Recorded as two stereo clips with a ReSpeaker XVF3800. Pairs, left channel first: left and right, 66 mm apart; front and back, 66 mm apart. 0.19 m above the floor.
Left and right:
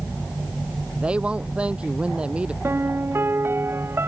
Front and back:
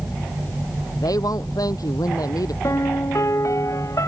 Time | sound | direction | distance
1.0 | a woman speaking | 20° right | ?
2.6 | a piano | 40° right | ?